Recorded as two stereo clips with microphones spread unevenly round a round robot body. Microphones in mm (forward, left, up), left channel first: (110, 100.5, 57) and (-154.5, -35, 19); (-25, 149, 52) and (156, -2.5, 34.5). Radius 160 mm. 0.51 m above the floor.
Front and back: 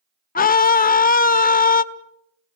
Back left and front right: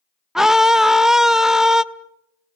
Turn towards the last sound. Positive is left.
turn(degrees=30)